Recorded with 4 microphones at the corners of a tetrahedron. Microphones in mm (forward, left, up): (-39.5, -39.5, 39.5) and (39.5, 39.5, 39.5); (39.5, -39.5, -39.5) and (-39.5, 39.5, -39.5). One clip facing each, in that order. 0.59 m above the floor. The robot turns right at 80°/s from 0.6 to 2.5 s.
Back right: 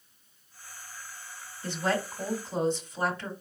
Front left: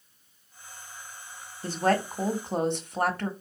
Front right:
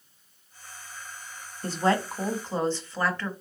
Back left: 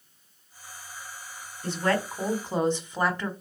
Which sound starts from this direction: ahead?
A woman speaking, at 1.6 s.